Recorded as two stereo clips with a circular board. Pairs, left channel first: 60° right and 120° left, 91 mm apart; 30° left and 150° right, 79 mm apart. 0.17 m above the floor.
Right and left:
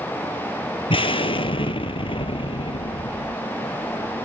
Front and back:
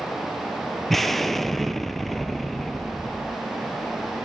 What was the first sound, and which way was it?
An explosion, 55° right.